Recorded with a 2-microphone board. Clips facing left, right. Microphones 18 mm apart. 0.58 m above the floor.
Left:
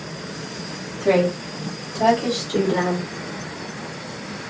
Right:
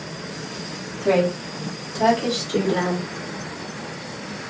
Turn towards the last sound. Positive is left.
turn(degrees=-40)  # may be behind; listen again after turning